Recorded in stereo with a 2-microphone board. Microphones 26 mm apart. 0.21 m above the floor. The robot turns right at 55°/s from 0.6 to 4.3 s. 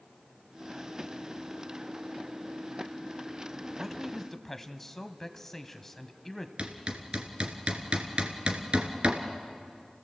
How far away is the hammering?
About 2 m.